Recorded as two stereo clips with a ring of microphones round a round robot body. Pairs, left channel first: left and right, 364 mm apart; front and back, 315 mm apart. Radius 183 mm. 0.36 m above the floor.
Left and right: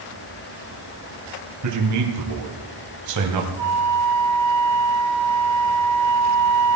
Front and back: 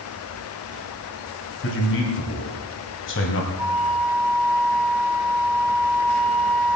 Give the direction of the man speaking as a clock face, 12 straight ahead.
2 o'clock.